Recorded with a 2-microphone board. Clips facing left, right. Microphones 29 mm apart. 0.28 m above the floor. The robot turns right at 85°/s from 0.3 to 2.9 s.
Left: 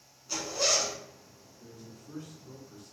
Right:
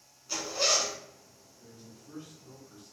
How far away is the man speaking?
About 1.2 m.